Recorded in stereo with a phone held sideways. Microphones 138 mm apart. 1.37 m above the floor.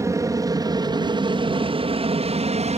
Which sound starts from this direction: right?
An aircraft, at 0.0 s.